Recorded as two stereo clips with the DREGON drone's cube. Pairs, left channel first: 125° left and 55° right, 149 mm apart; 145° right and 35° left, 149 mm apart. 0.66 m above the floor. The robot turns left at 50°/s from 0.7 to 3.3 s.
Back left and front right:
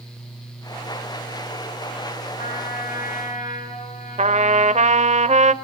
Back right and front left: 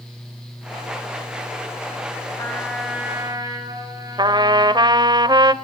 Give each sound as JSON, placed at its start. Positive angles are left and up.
{"t": 2.4, "sound": "a trumpet", "azimuth_deg": 145, "distance_m": 5.5}
{"t": 4.2, "sound": "a trumpet", "azimuth_deg": -25, "distance_m": 0.8}